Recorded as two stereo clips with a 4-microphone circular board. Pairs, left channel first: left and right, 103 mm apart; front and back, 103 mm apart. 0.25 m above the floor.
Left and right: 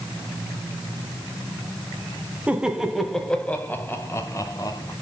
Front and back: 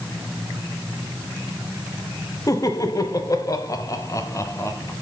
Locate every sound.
2.5 s laughter: 20° right, 1.2 m; by 4.9 s 50° left, 1.6 m